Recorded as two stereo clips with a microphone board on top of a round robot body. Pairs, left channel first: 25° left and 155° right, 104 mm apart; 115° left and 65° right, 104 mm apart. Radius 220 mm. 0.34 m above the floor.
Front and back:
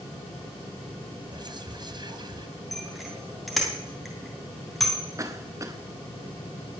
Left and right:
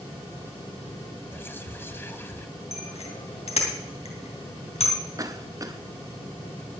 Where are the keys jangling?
No keys jangling in this recording.